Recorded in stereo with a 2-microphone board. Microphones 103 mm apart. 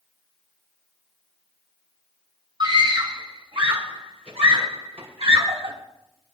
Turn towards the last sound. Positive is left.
turn(degrees=-75)  # may be behind; listen again after turning